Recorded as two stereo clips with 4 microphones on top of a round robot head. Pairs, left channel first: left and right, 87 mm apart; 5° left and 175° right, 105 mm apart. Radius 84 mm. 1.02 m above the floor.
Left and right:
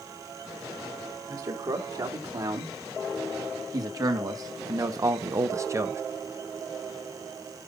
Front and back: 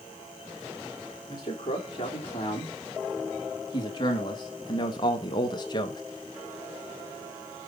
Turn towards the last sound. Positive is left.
turn(degrees=-40)